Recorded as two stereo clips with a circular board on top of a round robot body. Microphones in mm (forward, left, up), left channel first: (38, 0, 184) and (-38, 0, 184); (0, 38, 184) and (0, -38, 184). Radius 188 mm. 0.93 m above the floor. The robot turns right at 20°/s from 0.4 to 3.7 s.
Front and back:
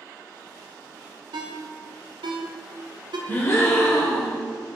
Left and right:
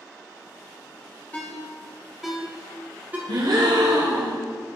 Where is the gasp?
60° right, 1.4 m; by 4.4 s 55° right, 1.4 m.